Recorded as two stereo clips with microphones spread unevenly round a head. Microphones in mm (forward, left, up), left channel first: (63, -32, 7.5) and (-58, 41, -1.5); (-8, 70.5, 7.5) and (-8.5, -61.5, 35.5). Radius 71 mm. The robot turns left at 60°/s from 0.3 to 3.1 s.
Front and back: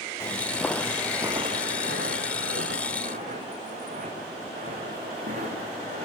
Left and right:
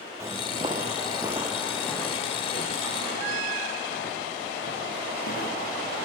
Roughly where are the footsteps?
Right.